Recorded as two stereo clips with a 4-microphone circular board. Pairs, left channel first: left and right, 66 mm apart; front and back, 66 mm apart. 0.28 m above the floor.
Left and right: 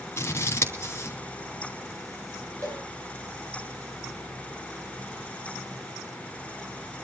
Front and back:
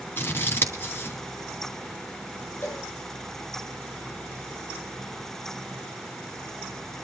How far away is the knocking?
No knocking in this recording.